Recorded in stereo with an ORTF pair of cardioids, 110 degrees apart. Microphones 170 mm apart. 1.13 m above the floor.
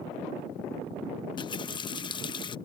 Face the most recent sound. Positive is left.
turn(degrees=30)